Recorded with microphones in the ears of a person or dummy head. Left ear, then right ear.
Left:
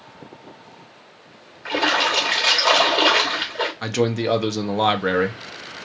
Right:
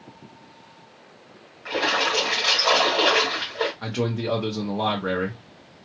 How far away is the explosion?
No explosion in this recording.